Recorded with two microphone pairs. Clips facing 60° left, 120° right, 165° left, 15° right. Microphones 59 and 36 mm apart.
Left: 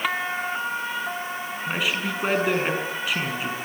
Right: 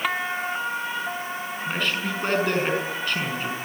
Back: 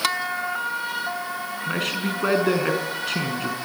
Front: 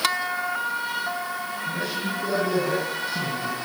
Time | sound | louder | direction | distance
1.7 | a man speaking | left 1 dB, back 4 dB | 140° left | 6.5 m